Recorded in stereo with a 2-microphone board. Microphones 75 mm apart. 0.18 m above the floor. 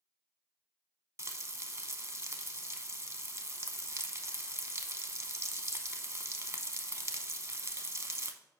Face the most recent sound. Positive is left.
turn(degrees=-40)  # may be behind; listen again after turning